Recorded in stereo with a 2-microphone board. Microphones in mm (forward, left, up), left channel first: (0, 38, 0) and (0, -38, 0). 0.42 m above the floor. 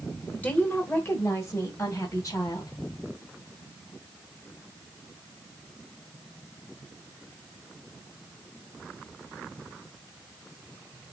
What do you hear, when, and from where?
0.3 s a woman speaking: 15° left (ahead or behind), 1.2 m; by 2.7 s 50° left (ahead or behind), 2.5 m